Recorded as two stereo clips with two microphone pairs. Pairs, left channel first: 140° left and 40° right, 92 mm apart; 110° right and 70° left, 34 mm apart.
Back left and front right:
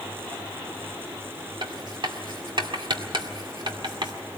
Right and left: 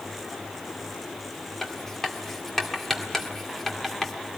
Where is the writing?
30° right, 2 m.